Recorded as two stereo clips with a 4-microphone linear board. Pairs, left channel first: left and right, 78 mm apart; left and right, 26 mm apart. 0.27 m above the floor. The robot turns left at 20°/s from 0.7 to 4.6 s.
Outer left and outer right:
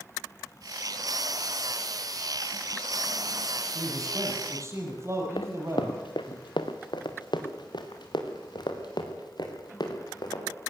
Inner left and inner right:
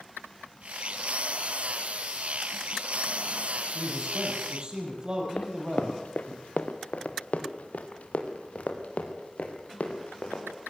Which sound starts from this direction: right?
A man speaking, at 3.8 s.